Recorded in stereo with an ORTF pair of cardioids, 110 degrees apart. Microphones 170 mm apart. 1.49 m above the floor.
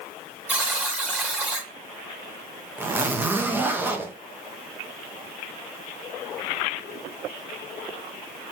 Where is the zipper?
10° right, 0.6 m.